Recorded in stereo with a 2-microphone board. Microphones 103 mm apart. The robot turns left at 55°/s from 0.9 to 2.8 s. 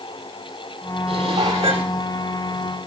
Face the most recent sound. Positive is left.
turn(degrees=-175)